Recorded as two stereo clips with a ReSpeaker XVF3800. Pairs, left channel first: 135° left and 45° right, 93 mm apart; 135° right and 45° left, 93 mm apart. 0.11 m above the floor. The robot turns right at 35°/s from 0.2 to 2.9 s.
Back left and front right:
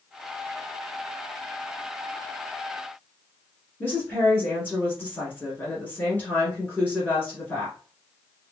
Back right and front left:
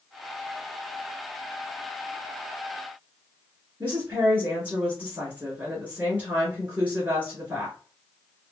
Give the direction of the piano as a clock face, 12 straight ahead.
No piano in this recording.